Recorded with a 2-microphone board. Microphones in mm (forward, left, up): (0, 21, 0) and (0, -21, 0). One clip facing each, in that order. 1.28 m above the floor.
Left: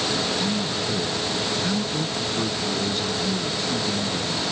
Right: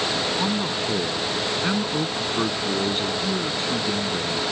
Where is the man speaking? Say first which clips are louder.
Right 1 dB; 35° right (ahead or behind).